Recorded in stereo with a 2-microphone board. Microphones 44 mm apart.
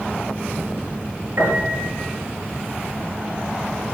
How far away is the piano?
About 4 m.